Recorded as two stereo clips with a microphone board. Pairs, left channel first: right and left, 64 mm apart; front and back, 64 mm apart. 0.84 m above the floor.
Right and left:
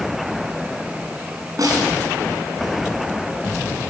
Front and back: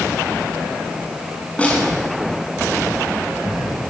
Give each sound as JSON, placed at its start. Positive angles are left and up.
{"t": 1.6, "sound": "a snare drum", "azimuth_deg": 70, "distance_m": 7.0}